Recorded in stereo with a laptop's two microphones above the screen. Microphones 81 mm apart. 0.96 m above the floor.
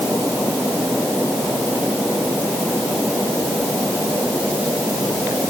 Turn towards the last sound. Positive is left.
No sound to turn to.